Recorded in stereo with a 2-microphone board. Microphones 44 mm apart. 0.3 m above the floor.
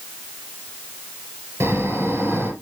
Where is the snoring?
80° right, 3 m.